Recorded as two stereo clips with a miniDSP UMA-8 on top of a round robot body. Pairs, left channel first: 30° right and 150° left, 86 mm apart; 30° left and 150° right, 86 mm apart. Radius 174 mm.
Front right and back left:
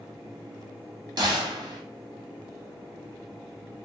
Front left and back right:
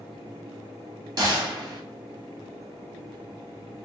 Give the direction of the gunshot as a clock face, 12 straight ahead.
6 o'clock.